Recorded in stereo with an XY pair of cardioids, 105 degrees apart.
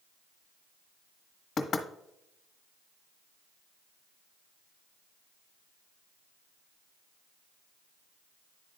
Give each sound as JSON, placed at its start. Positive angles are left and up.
{"t": 1.6, "sound": "knocking", "azimuth_deg": 60, "distance_m": 1.2}